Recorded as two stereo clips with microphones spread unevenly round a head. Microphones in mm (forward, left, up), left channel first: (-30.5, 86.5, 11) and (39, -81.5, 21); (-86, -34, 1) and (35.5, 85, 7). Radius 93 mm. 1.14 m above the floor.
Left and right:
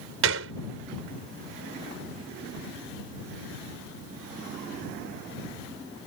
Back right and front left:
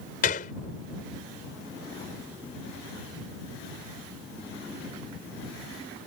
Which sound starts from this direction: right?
A gunshot, at 0.2 s.